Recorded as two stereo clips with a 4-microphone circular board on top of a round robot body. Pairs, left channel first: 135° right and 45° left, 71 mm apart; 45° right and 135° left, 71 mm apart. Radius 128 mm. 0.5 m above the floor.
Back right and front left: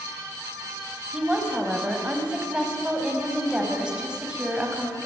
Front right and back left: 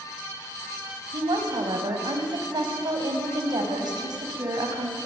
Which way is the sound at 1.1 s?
125° left.